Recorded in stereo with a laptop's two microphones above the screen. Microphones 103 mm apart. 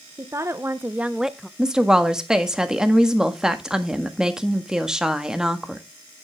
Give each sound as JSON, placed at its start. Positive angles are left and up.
{"t": 0.2, "sound": "a woman speaking", "side_deg": -30, "distance_m": 0.7}
{"t": 1.6, "sound": "a woman speaking", "side_deg": -5, "distance_m": 1.5}